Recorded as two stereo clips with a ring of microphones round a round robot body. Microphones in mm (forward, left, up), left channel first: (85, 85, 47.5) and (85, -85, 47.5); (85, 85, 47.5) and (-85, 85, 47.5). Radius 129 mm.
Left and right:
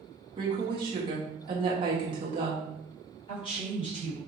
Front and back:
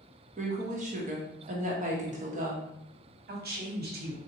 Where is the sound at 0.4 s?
145° right, 0.9 m.